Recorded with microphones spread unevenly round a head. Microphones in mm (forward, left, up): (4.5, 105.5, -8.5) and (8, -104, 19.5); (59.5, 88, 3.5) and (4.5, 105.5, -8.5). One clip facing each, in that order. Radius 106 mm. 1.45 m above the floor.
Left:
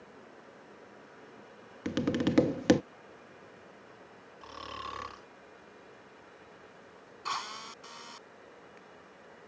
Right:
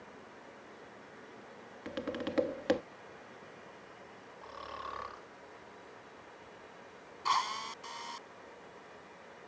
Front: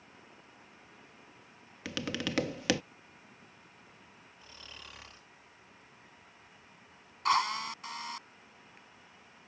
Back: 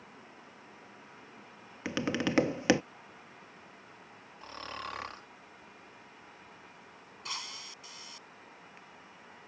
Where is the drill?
5° left.